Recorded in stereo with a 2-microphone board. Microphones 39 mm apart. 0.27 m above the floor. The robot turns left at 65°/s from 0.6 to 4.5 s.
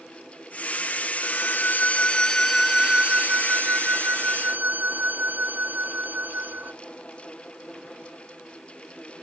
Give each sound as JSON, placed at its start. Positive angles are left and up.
{"t": 1.2, "sound": "a violin", "azimuth_deg": 85}